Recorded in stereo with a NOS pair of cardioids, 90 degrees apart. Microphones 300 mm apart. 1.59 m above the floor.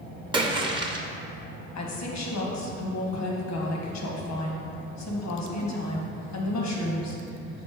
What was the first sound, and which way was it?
A splash, 15° right.